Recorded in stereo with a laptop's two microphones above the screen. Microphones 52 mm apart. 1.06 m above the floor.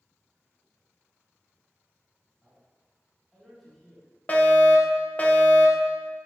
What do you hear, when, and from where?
2.4 s a man speaking: centre (ahead or behind), 4.5 m
4.3 s a fire alarm: 30° left (ahead or behind), 1.4 m